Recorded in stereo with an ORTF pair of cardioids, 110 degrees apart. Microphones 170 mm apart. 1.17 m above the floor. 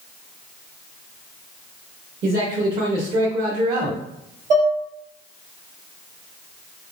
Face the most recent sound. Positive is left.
turn(degrees=-45)